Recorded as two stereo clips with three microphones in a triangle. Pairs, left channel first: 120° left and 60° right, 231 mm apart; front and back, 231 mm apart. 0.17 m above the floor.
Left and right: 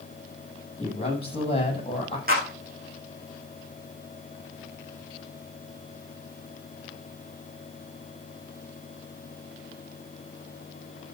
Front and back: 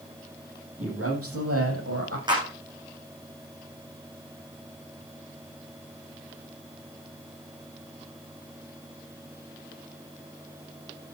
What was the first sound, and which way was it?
A man speaking, 175° right.